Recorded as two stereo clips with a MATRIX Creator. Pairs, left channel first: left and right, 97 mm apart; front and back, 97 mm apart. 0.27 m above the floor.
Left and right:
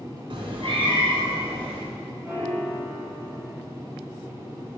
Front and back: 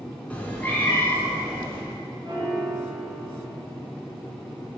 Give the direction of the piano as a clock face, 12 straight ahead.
5 o'clock.